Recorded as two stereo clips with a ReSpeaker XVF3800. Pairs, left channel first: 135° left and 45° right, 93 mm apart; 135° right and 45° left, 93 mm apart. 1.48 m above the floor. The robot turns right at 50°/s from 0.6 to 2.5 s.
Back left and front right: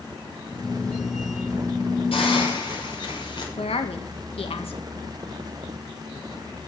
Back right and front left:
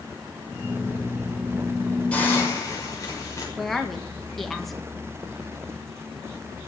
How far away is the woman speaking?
About 2 m.